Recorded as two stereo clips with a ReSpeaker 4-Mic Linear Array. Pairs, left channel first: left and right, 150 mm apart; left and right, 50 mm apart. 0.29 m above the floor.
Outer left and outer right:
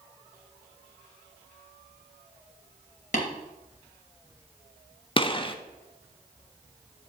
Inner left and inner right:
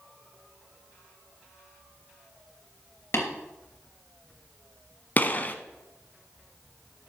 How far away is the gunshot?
About 0.6 m.